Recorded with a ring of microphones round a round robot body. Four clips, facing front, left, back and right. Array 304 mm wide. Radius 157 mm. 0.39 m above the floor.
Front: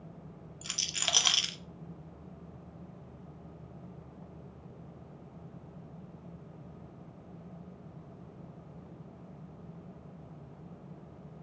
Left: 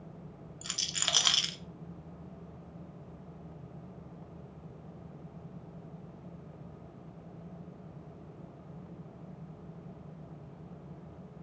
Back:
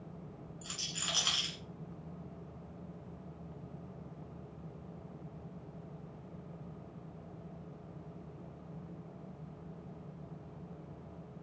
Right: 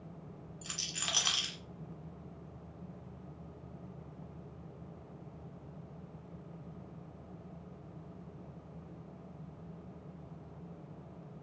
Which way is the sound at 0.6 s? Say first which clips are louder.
Left 4 dB, front 5 dB; 30° left.